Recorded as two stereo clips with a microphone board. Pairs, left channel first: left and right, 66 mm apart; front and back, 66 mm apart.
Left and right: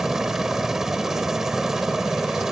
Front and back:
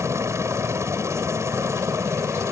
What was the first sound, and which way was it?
A helicopter, 170° right.